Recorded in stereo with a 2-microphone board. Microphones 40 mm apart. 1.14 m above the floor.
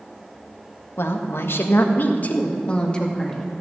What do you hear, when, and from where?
1.0 s a woman speaking: 75° left (ahead or behind), 1.7 m; by 3.5 s 10° left (ahead or behind), 2.5 m